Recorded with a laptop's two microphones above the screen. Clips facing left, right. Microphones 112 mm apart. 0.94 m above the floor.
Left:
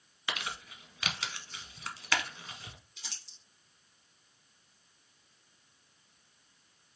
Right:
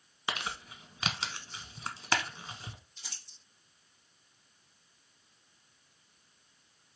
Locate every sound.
0.3 s crumpling: 25° right (ahead or behind), 1.1 m
3.0 s crumpling: 75° left (ahead or behind), 1.3 m